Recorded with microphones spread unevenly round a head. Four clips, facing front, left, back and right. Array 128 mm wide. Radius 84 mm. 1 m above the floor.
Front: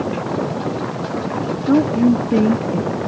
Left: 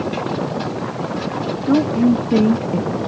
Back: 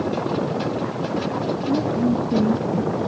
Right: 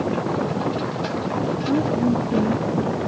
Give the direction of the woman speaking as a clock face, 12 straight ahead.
11 o'clock.